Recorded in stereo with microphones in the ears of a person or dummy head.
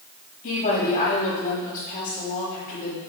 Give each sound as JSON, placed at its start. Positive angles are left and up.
{"t": 0.4, "sound": "a woman speaking", "side_deg": 40, "distance_m": 3.5}